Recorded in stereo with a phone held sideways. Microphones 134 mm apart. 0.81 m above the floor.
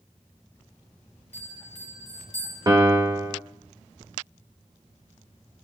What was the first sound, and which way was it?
A bell, 60° right (ahead or behind).